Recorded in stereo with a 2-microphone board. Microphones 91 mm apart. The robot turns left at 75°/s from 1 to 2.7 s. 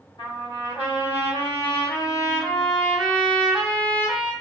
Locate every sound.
0.2 s a trumpet: 115° left, 1.3 m; by 4.3 s 15° right, 1.3 m